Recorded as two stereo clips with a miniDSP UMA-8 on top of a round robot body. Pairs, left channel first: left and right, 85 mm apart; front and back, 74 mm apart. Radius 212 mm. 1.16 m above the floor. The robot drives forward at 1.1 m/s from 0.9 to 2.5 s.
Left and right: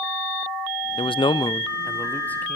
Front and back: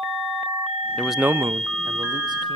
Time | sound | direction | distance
1.0 | a man speaking | 70° left | 0.5 m